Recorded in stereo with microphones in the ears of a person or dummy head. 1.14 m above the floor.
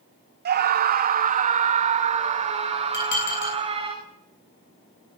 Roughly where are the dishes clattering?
Left.